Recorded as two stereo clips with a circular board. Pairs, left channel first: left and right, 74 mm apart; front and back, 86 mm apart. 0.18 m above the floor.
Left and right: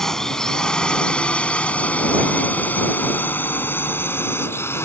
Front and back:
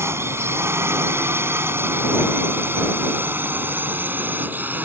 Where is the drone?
165° left; by 4.8 s 120° left.